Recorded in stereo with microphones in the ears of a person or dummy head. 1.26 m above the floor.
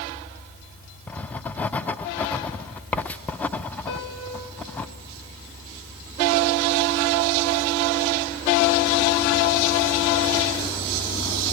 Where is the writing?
10° left (ahead or behind), 0.5 m.